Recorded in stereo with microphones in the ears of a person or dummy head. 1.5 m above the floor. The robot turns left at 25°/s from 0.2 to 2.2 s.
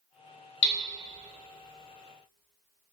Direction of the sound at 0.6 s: 60° left (ahead or behind).